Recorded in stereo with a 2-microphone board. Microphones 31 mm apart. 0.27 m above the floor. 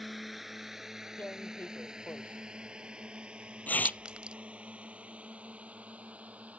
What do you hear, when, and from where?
0.0 s a drone: centre (ahead or behind); by 6.6 s 50° right (ahead or behind)
1.2 s tearing paper: 75° left (ahead or behind)
3.9 s a clink: 30° right (ahead or behind)